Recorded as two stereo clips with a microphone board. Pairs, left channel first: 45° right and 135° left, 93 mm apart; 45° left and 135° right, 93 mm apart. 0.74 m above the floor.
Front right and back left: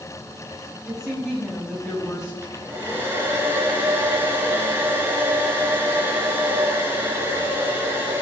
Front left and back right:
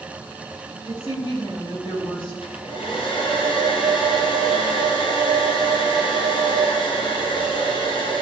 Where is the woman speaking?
50° left, 5 m.